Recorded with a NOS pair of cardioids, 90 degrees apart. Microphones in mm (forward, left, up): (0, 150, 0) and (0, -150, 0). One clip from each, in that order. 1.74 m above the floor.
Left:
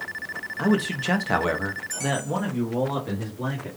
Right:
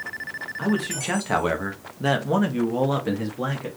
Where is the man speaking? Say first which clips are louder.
Left 3 dB; 25° left, 1.4 m; by 3.7 s 65° right, 2 m.